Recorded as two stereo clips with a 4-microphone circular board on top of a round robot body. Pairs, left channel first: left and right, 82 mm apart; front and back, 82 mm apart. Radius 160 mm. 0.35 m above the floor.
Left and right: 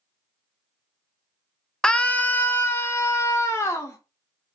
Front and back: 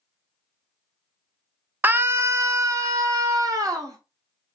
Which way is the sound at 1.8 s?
160° left.